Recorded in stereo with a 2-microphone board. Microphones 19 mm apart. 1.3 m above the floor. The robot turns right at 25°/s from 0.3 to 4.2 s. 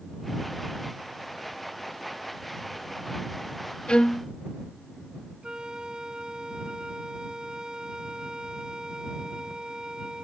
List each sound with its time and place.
3.9 s a violin: 75° left (ahead or behind); by 4.3 s 70° left (ahead or behind)
5.4 s a flute: 55° right (ahead or behind)